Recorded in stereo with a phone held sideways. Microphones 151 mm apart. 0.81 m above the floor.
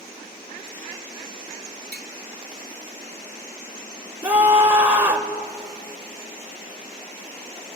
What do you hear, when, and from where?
1.9 s tapping: 75° right (ahead or behind), 1.7 m
4.2 s a scream: 10° right (ahead or behind), 2.5 m